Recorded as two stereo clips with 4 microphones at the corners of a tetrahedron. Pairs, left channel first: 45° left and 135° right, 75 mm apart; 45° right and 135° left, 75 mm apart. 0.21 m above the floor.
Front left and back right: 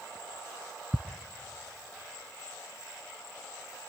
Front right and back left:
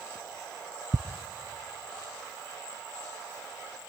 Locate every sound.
0.9 s ticking: 140° left, 0.6 m